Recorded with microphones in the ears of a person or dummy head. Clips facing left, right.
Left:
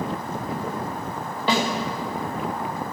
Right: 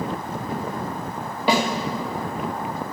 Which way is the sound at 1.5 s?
10° right (ahead or behind).